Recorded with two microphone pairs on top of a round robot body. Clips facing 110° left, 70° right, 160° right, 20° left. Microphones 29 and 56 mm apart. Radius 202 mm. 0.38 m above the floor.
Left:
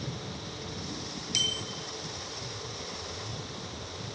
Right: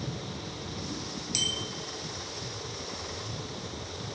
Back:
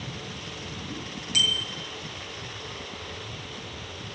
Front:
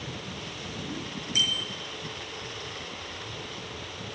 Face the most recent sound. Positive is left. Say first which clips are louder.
# left 1 dB, back 3 dB
turn(degrees=-170)